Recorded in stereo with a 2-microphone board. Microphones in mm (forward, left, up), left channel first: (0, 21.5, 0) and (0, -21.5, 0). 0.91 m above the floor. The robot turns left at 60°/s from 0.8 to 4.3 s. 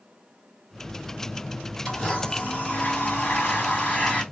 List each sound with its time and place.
1.9 s a blender: 170° left, 1.1 m; by 4.2 s 30° left, 1.1 m